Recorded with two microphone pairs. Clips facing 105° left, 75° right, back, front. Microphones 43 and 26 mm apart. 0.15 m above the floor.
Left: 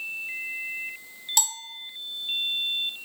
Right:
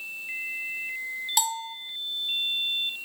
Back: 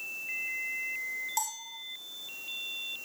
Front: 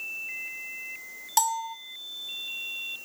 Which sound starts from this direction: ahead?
A bell, at 1.4 s.